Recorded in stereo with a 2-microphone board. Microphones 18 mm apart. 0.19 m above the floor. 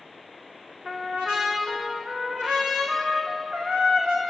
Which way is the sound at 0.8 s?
60° right (ahead or behind).